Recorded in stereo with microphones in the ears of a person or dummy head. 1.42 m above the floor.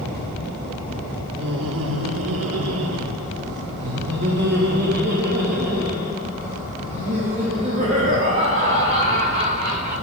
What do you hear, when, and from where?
1.4 s laughter: 60° right (ahead or behind), 1.3 m; by 9.9 s 30° right (ahead or behind), 5.5 m